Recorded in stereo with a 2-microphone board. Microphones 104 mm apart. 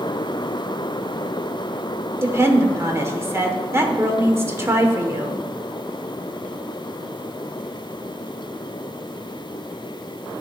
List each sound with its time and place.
2.2 s a woman speaking: 25° right (ahead or behind), 1.0 m